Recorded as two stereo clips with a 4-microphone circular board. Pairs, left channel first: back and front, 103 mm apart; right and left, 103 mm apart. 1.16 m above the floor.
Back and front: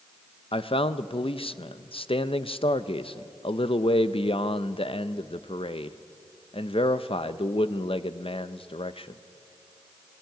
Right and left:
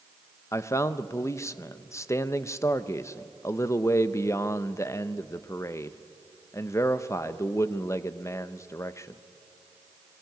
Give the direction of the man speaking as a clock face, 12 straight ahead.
5 o'clock.